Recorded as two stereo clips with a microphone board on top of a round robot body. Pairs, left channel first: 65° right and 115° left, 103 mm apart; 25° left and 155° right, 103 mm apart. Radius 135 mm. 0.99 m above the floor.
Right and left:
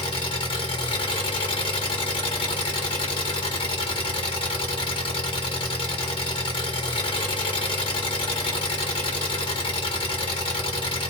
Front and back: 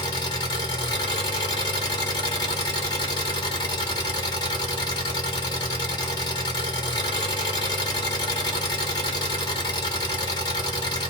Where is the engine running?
25° right, 1.3 m.